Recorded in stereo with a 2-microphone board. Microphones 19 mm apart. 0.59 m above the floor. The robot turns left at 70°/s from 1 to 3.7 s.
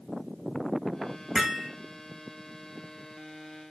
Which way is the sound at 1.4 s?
25° right (ahead or behind).